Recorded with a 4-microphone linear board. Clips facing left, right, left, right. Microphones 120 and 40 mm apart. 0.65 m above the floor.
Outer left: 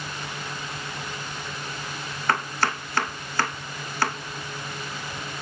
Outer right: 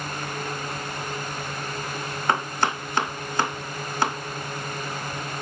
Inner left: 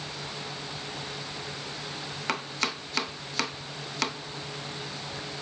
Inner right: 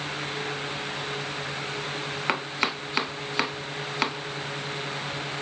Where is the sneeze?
No sneeze in this recording.